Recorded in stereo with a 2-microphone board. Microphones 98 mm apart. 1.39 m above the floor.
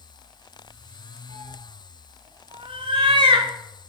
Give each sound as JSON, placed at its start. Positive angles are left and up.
{"t": 1.3, "sound": "a cat meowing", "side_deg": -75, "distance_m": 3.0}